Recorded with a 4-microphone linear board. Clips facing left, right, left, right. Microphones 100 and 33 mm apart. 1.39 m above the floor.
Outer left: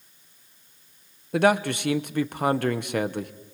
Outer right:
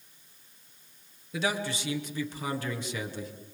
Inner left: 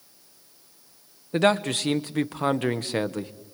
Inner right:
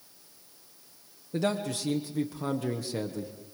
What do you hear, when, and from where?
1.3 s a man speaking: 60° left (ahead or behind), 1.2 m